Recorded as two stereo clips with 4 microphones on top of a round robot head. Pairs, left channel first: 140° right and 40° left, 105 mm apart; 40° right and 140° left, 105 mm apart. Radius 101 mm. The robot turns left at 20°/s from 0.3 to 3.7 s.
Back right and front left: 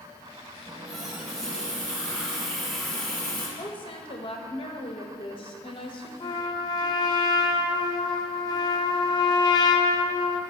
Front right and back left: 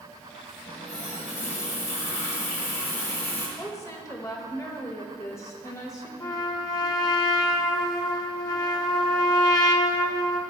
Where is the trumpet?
90° right, 0.6 m.